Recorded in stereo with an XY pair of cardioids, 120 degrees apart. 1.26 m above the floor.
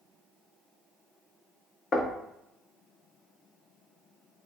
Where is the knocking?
40° left, 0.6 m.